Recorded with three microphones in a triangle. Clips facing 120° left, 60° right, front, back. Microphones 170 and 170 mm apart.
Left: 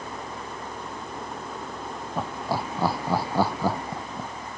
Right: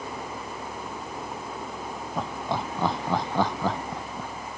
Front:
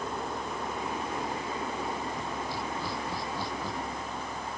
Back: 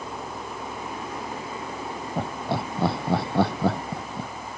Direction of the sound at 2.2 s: 155° right.